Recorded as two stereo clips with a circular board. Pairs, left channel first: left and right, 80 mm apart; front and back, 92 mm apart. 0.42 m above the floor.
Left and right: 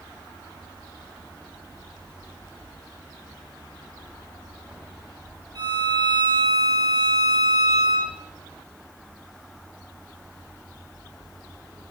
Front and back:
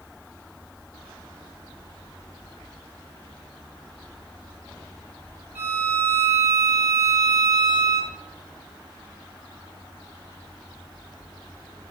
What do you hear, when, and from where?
5.5 s a violin: 110° right, 5.5 m